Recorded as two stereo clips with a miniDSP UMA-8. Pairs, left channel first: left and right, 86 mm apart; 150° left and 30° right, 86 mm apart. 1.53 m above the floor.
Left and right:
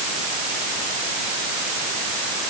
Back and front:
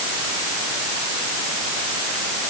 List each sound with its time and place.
Only background noise.